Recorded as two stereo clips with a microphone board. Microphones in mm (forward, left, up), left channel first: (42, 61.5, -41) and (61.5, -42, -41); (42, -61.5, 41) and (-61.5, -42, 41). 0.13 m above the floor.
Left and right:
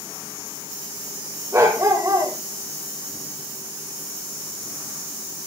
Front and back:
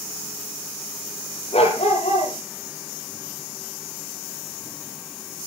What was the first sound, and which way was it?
A dog barking, 20° right.